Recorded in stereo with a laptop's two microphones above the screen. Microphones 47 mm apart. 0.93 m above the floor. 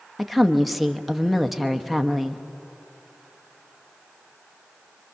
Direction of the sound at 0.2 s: Centre (ahead or behind).